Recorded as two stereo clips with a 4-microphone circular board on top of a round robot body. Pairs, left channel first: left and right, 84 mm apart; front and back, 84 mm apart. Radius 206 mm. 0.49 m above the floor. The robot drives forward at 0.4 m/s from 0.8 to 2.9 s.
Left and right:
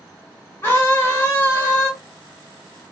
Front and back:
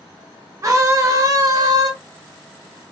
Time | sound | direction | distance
0.6 | a scream | 145° left | 1.9 m